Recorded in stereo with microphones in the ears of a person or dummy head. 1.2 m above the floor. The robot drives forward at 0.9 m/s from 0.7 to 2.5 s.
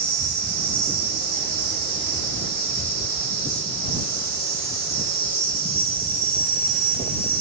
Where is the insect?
55° right (ahead or behind), 2.5 m; by 7.4 s 35° right (ahead or behind), 3.5 m.